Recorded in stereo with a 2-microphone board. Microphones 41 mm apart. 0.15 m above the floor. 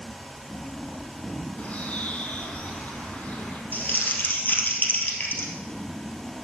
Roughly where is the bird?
Left.